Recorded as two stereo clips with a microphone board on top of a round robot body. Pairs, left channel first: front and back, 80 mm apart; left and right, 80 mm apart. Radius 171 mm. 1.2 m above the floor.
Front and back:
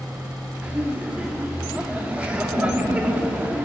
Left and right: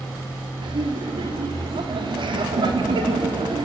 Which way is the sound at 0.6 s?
105° right.